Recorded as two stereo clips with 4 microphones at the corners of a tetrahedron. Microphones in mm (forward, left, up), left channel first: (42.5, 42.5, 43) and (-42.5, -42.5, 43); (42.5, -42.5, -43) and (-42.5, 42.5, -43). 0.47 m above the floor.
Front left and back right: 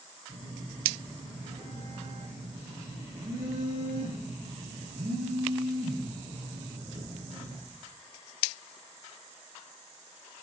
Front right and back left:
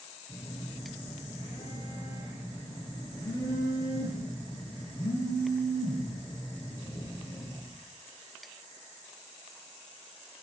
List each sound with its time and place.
0.3 s a phone buzzing: 105° right, 9.5 m